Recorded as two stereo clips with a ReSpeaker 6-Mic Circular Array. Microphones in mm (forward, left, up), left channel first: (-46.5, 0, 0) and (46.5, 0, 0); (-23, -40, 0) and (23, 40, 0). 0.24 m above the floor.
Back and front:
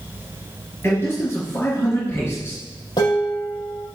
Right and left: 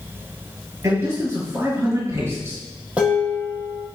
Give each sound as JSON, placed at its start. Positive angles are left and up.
{"t": 0.8, "sound": "a man speaking", "azimuth_deg": 115, "distance_m": 4.5}
{"t": 3.0, "sound": "dishes clattering", "azimuth_deg": 135, "distance_m": 5.5}